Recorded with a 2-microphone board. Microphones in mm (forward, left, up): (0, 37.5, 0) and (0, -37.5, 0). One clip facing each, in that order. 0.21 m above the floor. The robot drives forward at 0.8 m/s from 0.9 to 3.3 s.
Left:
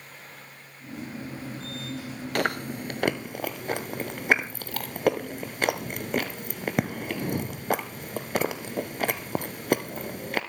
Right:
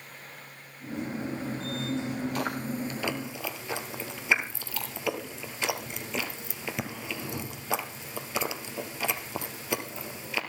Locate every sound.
2.4 s chewing: 75° left (ahead or behind), 1.4 m; by 10.4 s 50° left (ahead or behind), 1.7 m